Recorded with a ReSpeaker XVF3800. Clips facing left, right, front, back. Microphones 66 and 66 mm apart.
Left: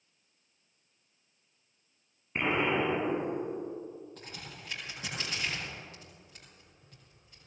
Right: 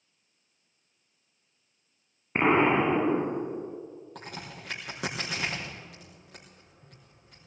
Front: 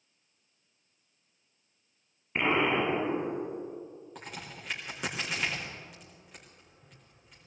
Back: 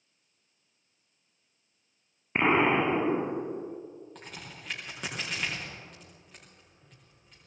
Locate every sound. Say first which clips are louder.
2.4 s an explosion: right 7 dB, back 3 dB; 125° right, 1.2 m
4.2 s a crack: right 5 dB, front 2 dB; 85° right, 5 m